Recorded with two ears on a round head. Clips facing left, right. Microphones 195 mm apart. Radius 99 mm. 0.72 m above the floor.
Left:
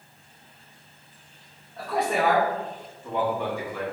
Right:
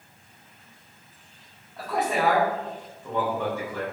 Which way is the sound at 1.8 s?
5° right (ahead or behind).